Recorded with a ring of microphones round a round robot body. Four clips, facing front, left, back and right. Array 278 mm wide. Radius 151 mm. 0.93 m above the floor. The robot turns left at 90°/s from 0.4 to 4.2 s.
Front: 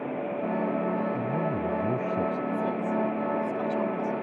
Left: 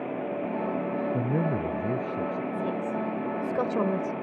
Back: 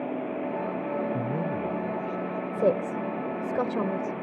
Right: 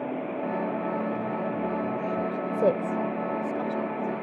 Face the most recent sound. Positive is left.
turn(degrees=85)